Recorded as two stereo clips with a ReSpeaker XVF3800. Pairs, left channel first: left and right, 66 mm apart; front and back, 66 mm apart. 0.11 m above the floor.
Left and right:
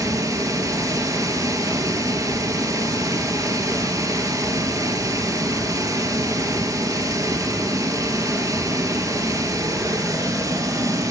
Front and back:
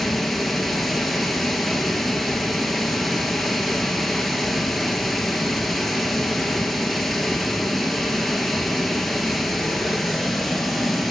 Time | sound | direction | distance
0.0 | running water | 90° right | 0.8 m